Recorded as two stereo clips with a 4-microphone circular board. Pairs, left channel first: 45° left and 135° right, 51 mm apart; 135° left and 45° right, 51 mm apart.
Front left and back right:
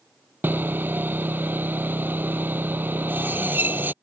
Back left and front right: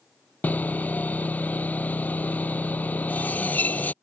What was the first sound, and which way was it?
Sawing, 175° right.